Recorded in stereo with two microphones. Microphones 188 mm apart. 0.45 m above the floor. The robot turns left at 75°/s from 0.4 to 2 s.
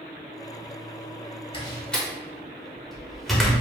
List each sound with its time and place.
1.5 s a door slam: 30° left (ahead or behind), 0.9 m; by 3.6 s centre (ahead or behind), 0.9 m